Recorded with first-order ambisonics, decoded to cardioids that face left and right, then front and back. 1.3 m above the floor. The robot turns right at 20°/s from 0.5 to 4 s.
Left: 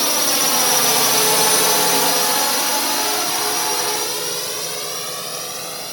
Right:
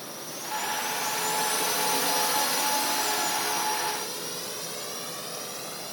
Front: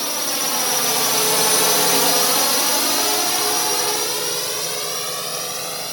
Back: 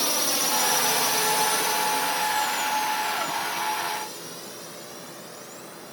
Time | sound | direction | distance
0.0 | a drone | 90° left | ?